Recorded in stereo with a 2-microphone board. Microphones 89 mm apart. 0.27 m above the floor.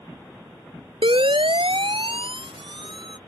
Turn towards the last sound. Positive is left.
turn(degrees=-65)  # may be behind; listen again after turning